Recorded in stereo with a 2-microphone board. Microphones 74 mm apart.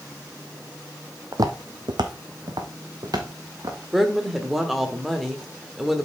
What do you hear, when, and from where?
1.3 s footsteps: 50° right (ahead or behind), 1.0 m
3.9 s a woman speaking: centre (ahead or behind), 1.4 m